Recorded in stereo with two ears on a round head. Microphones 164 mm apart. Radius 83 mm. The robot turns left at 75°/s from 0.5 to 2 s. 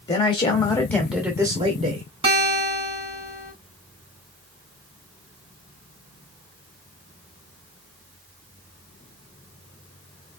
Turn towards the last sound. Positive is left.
turn(degrees=-25)  # may be behind; listen again after turning